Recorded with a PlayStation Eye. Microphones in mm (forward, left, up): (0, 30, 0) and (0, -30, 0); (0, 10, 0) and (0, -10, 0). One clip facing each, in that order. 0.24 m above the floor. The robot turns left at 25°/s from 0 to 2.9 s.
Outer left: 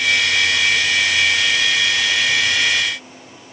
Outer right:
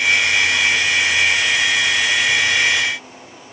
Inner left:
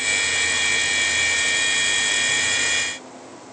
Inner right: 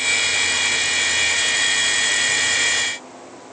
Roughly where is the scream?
No scream in this recording.